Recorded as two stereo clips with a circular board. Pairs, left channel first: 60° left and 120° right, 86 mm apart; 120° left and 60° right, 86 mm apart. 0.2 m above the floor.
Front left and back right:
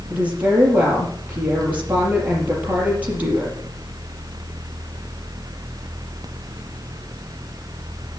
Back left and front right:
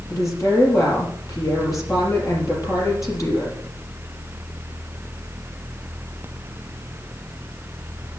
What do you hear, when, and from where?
0.1 s a woman speaking: 170° left, 5.5 m